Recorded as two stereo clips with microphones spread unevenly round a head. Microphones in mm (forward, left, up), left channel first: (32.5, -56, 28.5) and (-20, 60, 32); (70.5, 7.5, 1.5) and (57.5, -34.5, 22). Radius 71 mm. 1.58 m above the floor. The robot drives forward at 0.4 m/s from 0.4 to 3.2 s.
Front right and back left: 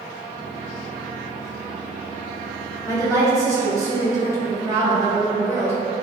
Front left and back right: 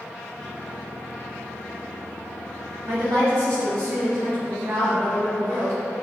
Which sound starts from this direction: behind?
A woman speaking, at 2.9 s.